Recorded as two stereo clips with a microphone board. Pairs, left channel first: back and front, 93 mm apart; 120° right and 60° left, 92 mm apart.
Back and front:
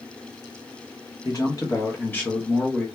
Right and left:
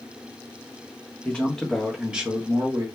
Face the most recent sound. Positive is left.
turn(degrees=85)